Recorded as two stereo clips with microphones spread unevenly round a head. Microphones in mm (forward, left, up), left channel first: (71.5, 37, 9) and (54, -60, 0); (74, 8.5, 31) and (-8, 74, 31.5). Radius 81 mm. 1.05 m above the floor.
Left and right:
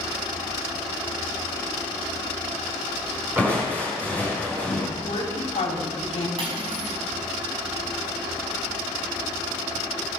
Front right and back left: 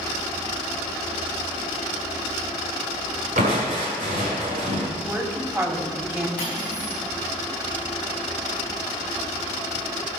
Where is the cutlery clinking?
75° right, 4.5 m.